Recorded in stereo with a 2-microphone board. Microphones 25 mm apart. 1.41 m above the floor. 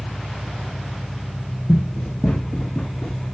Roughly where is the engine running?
Left.